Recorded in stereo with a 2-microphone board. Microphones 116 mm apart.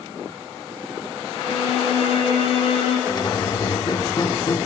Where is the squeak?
35° left (ahead or behind), 0.8 m.